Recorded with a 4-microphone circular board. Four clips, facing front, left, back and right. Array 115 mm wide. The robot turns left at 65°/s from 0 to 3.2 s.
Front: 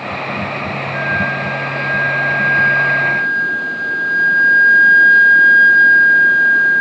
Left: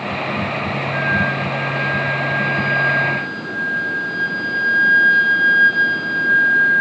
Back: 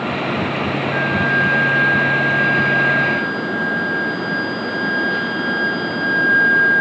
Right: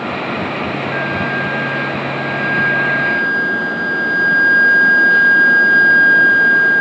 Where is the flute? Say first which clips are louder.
Right 1 dB, even; 110° right, 1.4 m; by 6.8 s 100° left, 1.4 m.